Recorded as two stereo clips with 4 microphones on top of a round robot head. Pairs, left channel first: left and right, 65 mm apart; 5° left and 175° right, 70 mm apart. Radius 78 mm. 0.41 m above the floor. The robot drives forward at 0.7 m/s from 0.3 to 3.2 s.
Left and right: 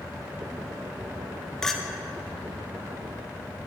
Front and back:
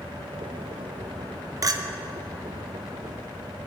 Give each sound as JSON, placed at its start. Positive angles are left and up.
{"t": 1.6, "sound": "a clink", "azimuth_deg": 170, "distance_m": 0.5}